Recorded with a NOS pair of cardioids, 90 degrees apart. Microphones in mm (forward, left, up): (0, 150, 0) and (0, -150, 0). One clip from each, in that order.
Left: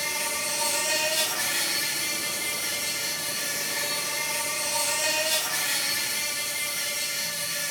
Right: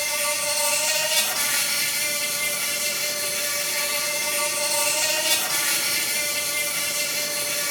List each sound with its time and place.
0.0 s an insect: 70° right, 1.0 m